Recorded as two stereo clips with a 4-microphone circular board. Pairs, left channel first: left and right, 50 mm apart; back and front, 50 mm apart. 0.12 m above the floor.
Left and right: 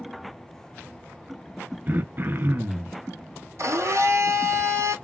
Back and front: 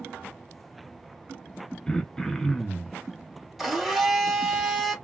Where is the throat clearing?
110° right, 0.5 m.